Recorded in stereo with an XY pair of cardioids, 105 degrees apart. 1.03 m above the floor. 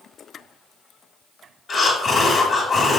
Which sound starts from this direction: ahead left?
Breathing, at 1.7 s.